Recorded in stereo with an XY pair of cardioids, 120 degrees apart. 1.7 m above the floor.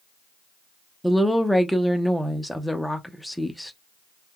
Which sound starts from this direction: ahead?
A woman speaking, at 1.0 s.